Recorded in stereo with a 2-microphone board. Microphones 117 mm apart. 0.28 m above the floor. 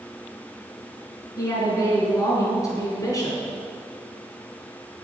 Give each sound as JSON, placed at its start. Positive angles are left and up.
{"t": 1.4, "sound": "a woman speaking", "side_deg": 30, "distance_m": 4.0}